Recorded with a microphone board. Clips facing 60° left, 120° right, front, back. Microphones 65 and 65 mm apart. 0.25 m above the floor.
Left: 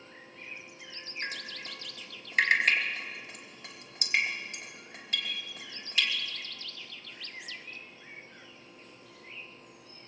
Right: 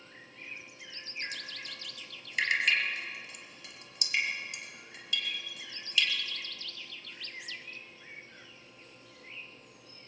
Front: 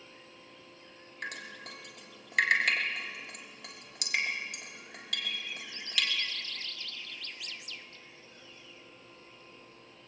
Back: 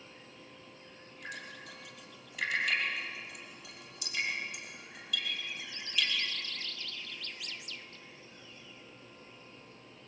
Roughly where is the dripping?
Ahead.